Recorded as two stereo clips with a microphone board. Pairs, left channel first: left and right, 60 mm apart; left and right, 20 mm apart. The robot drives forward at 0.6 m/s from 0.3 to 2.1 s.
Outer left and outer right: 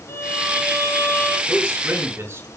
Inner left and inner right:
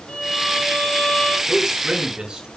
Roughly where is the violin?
Left.